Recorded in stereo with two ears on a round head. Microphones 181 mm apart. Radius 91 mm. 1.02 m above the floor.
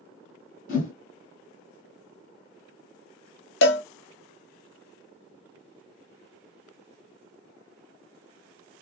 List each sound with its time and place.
0.7 s a whoosh: 45° left (ahead or behind), 1.4 m
3.6 s a cowbell: 60° left (ahead or behind), 0.6 m